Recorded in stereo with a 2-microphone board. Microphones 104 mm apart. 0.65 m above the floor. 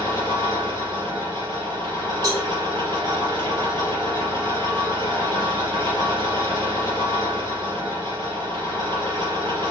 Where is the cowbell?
35° right (ahead or behind), 2.5 m.